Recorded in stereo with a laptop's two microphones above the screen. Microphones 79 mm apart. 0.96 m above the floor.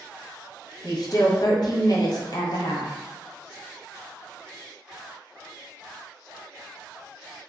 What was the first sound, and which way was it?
A woman speaking, 55° left (ahead or behind).